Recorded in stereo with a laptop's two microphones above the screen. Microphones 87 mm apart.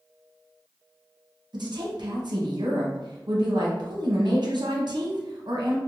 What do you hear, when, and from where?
1.5 s a woman speaking: 65° right (ahead or behind), 0.8 m